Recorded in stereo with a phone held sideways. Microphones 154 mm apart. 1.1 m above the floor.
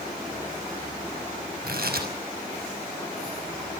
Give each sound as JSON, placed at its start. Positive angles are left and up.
{"t": 1.6, "sound": "tearing paper", "side_deg": -85, "distance_m": 5.5}